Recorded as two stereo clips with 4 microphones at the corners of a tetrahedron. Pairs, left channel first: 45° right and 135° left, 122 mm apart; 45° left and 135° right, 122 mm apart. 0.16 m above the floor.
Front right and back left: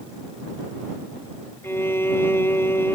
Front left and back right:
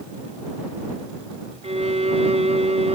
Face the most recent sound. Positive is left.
turn(degrees=-115)